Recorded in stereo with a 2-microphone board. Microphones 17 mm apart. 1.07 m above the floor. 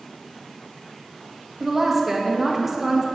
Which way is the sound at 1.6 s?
15° right (ahead or behind).